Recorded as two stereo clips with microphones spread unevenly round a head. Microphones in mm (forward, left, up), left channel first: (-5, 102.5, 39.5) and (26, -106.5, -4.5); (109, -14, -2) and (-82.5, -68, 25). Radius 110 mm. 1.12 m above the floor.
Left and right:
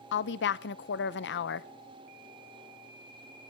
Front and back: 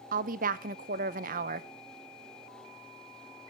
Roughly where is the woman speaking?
Behind left.